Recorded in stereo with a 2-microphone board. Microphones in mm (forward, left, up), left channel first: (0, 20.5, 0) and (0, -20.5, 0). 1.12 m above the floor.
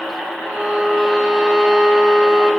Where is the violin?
10° left (ahead or behind), 1.0 m.